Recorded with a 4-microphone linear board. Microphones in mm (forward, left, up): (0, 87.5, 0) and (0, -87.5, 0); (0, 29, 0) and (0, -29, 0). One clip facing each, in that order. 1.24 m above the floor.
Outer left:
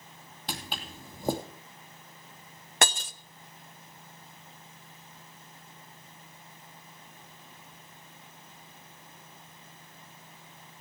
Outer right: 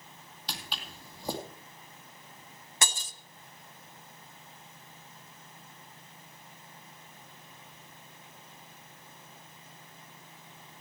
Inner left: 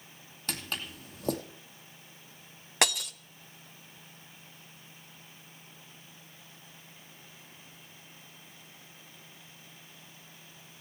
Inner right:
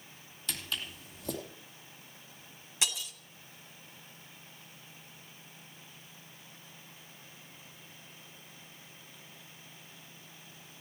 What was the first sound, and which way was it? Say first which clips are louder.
Footsteps: outer left 4 dB, inner left 2 dB; 55° left (ahead or behind).